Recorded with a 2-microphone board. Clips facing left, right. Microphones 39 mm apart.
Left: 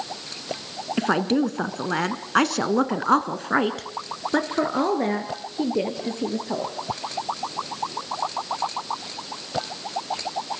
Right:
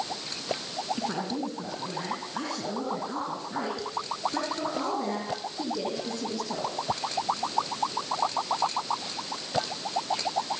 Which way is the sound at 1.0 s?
50° left (ahead or behind).